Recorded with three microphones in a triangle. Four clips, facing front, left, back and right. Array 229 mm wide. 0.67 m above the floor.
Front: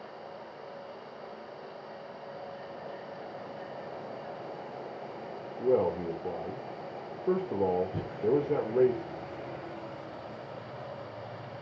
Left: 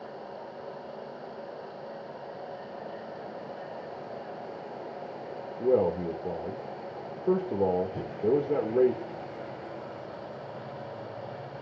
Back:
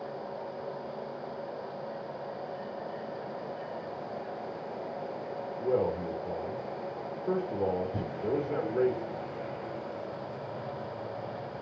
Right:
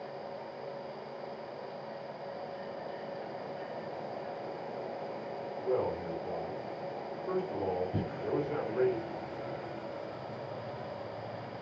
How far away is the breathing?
About 4 m.